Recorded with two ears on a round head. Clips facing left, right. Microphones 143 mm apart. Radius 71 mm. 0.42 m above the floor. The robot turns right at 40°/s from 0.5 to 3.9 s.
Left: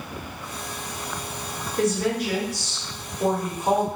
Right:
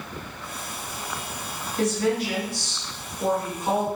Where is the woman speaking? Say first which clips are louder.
Even; 90° left, 1.2 m; by 3.9 s 170° left, 1.2 m.